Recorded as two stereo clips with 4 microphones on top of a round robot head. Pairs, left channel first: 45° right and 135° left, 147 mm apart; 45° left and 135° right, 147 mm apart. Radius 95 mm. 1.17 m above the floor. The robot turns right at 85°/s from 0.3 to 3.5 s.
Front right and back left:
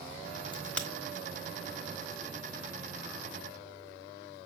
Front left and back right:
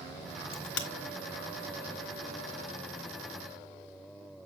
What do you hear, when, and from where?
0.5 s a crack: 15° left, 1.2 m; by 0.9 s 45° left, 1.2 m